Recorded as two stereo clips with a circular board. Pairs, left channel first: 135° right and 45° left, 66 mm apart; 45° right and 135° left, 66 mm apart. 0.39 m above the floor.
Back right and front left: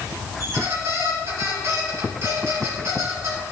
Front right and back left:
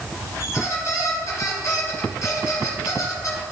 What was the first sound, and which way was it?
A squeak, 5° right.